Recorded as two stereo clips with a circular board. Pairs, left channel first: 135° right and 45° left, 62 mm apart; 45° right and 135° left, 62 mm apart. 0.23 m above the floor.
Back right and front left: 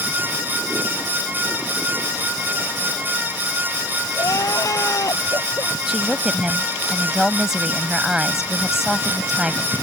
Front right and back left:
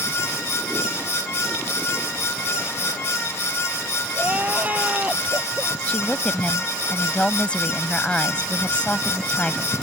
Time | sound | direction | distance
4.2 | crying | 160° right | ?
5.9 | a woman speaking | 20° right | ?